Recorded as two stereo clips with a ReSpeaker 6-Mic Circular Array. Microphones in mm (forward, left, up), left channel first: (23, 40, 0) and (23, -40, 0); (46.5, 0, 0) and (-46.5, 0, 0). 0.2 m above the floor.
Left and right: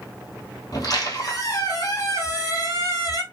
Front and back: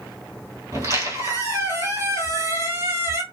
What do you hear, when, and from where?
0.7 s a squeak: 125° left, 1.1 m